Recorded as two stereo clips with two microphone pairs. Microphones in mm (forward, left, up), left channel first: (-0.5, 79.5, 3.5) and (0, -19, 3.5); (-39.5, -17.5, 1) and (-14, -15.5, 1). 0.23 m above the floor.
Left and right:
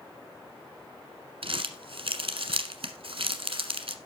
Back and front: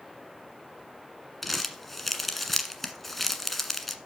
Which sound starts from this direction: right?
Crumpling, at 1.4 s.